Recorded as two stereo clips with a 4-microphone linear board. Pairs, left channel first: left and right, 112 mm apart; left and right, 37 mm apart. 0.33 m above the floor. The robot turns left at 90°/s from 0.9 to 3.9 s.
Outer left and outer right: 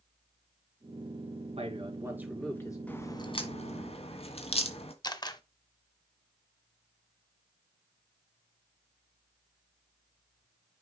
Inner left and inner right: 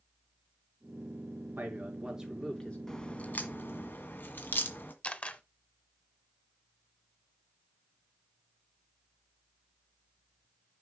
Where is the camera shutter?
40° left (ahead or behind), 1.1 m.